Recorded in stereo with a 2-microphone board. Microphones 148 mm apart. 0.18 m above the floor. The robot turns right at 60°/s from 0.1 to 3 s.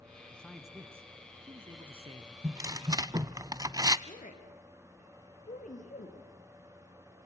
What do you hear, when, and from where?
0.3 s a man speaking: 165° left, 1.2 m; by 2.3 s 75° right, 1.2 m
2.4 s tearing paper: 20° right (ahead or behind), 0.5 m; by 4.0 s 25° right (ahead or behind), 0.5 m
4.1 s a woman speaking: 55° left (ahead or behind), 3.5 m